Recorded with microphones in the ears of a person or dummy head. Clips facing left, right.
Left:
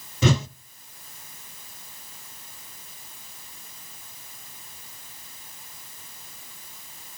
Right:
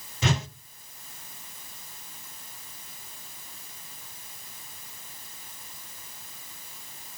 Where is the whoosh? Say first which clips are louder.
Left 6 dB; 80° left, 0.8 m.